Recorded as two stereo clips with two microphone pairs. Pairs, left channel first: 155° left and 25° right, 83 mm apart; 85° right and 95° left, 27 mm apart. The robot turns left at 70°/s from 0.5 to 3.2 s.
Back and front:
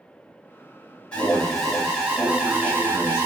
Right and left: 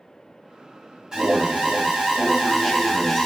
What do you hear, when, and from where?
1.1 s an alarm: 100° left, 1.4 m; by 3.3 s 45° right, 1.4 m